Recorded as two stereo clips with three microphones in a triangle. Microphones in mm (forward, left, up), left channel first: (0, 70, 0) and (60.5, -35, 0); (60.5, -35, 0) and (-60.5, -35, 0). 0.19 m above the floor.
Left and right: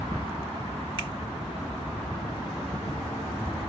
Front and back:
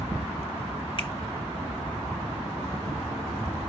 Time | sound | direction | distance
1.0 | a finger snap | 25° right | 2 m